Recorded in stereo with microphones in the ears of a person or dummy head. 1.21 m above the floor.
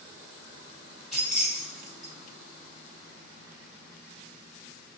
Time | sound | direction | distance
1.1 | keys jangling | 5° left (ahead or behind) | 1.0 m